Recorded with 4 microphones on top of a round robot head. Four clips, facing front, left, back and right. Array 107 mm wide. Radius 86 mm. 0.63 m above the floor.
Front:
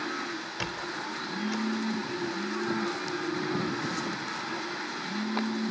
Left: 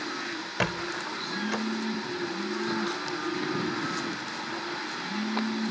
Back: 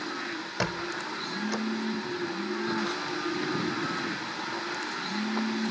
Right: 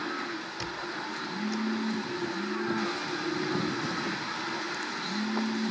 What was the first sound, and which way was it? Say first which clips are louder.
A squeak: left 9 dB, back 6 dB; 125° left.